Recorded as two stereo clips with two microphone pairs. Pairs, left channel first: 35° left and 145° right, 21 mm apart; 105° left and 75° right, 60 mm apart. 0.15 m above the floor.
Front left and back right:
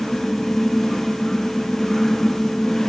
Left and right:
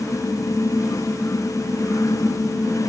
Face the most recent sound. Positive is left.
No sound to turn to.